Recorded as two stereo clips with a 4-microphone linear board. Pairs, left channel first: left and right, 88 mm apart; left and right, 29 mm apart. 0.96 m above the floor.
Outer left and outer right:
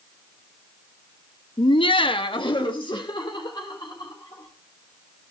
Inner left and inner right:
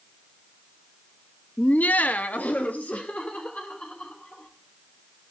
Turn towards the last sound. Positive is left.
turn(degrees=55)  # may be behind; listen again after turning